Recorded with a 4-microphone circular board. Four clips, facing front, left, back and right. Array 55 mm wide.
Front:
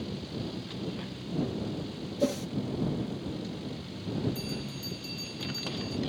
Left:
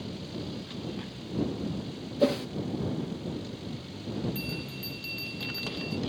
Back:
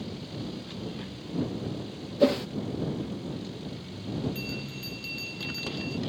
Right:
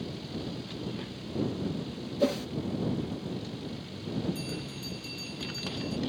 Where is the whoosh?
170° left.